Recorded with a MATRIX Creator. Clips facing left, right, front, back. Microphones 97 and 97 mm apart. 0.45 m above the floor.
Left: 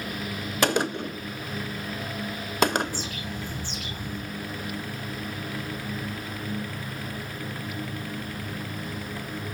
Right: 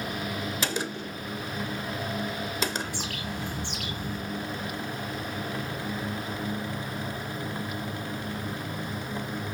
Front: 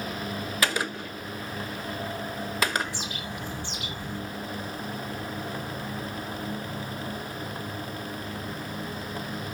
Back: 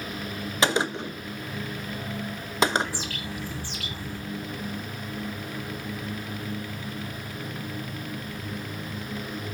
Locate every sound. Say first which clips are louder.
0.6 s a gunshot: left 7 dB, back 5 dB; 115° left, 0.6 m
2.8 s a bird: left 1 dB, back 1 dB; 70° right, 2.5 m